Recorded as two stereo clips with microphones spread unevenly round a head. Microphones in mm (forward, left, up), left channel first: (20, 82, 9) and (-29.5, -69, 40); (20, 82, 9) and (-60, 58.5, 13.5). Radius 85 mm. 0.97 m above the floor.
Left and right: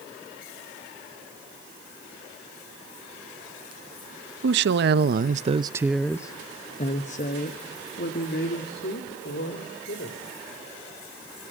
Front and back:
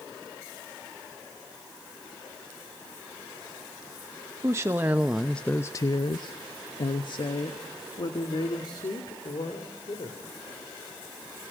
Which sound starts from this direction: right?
A woman speaking, at 4.4 s.